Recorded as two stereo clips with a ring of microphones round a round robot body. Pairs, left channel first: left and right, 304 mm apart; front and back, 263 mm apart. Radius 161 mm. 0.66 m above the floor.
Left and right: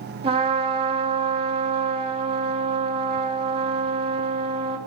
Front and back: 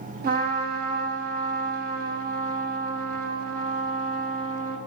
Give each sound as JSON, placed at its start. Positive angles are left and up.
{"t": 0.2, "sound": "a trumpet", "azimuth_deg": -150, "distance_m": 0.5}